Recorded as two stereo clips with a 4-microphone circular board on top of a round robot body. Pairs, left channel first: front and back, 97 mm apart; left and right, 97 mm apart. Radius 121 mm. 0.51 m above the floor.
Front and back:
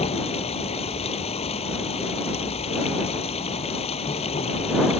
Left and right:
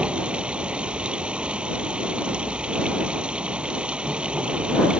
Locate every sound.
0.0 s running water: 10° right